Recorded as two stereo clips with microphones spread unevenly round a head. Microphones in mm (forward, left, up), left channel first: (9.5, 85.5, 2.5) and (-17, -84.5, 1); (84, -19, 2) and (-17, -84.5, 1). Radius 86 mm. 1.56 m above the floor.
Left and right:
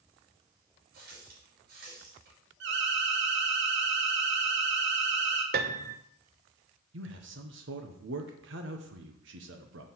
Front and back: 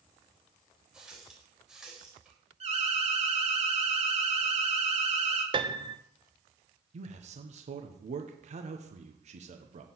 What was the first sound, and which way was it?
A running tap, 60° right.